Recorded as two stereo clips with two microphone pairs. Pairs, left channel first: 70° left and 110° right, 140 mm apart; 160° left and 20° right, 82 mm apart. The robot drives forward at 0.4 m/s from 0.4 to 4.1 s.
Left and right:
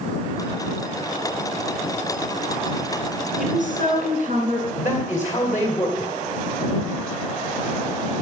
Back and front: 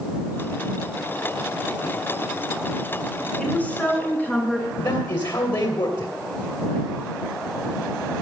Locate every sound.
3.4 s a woman speaking: 130° right, 5.5 m; by 4.7 s 135° right, 5.5 m
4.8 s a man speaking: 140° left, 2.5 m